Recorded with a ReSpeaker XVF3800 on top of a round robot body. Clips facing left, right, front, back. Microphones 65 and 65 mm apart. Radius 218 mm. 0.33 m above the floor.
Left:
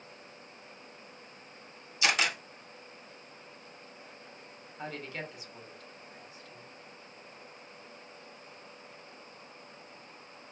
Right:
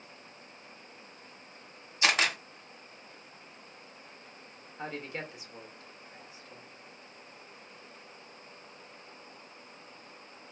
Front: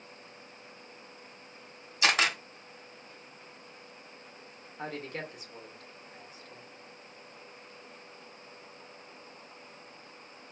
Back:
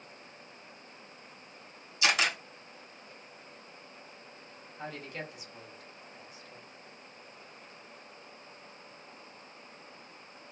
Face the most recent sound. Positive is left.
turn(degrees=-30)